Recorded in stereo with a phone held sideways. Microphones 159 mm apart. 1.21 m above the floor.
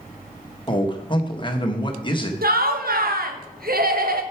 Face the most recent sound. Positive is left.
turn(degrees=-90)